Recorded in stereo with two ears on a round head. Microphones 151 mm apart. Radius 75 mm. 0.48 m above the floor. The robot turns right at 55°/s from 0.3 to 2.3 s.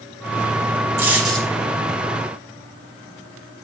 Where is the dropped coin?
20° right (ahead or behind), 5 m; by 1.5 s 10° left (ahead or behind), 5 m.